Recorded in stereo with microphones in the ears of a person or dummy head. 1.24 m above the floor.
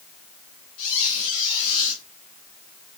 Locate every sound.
0.8 s a squeak: 40° left (ahead or behind), 2.5 m